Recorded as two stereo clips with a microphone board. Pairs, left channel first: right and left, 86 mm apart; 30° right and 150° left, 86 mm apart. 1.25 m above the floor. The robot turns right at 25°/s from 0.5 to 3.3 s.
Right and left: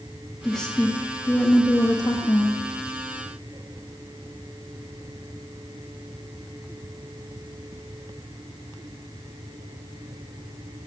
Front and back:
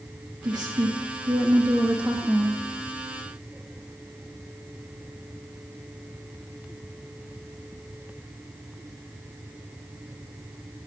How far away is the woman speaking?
About 1.9 m.